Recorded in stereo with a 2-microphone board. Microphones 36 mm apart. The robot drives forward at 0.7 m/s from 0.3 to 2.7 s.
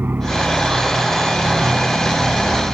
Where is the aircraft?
65° right (ahead or behind).